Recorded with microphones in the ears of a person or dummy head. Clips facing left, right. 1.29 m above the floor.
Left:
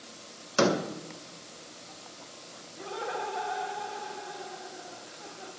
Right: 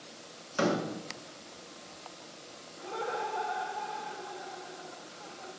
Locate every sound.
0.6 s a door slam: 60° left (ahead or behind), 0.8 m
2.8 s laughter: 15° left (ahead or behind), 1.8 m